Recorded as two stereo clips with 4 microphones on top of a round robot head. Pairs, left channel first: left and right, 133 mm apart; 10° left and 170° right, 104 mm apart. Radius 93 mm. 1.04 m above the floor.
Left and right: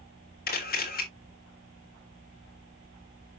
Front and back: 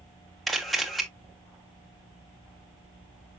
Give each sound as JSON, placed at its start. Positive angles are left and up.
{"t": 0.5, "sound": "a camera shutter", "azimuth_deg": 95, "distance_m": 2.5}